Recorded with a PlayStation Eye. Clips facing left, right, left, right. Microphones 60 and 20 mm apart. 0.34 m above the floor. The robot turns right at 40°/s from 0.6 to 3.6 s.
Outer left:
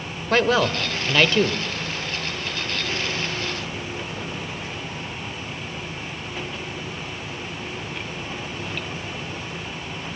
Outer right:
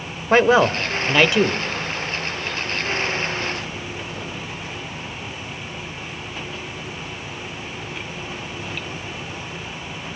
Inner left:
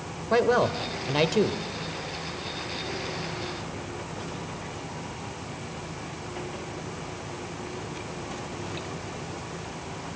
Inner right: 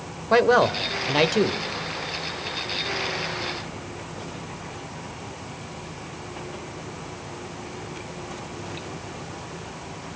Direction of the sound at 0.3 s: 25° right (ahead or behind).